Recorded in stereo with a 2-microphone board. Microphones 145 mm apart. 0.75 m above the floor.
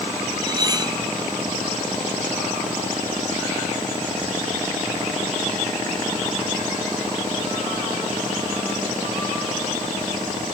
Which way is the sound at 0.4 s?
30° right (ahead or behind).